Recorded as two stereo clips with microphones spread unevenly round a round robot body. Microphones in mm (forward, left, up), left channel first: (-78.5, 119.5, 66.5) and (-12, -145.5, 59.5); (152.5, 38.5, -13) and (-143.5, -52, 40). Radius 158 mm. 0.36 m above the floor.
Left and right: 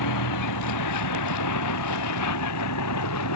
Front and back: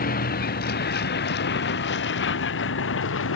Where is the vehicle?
80° left; by 3.4 s 70° left.